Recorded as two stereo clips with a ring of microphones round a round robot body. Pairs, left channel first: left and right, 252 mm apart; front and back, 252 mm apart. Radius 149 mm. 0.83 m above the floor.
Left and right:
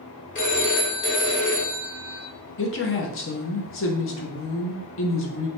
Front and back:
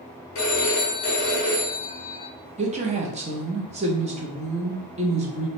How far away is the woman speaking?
About 0.7 m.